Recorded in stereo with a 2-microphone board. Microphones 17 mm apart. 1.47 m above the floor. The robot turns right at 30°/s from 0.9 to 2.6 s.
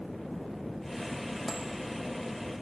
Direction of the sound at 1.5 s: 15° left (ahead or behind).